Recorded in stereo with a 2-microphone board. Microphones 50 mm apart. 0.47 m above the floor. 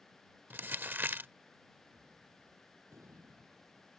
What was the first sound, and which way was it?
Crumpling, 40° right (ahead or behind).